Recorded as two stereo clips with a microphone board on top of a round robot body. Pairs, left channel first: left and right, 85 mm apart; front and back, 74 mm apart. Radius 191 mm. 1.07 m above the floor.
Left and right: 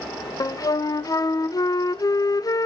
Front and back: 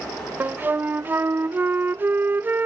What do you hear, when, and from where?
0.4 s a flute: 120° left, 0.6 m